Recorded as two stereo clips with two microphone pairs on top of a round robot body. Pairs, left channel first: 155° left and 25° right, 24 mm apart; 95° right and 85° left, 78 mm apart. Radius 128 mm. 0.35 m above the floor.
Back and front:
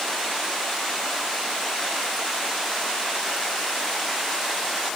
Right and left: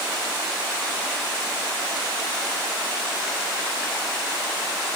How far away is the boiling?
No boiling in this recording.